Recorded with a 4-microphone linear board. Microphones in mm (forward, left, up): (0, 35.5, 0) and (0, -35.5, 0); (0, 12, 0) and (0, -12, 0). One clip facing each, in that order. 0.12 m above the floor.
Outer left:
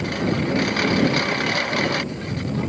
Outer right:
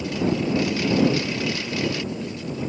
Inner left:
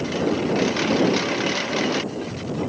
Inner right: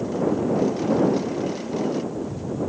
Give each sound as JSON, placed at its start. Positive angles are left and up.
{"t": 0.0, "sound": "a lawn mower", "side_deg": 55}